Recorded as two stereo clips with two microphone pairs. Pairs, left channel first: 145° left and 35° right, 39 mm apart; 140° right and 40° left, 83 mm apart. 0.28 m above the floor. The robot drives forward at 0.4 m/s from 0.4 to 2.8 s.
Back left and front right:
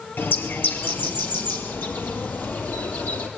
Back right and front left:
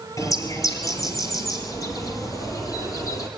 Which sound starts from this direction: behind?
A bird, at 0.2 s.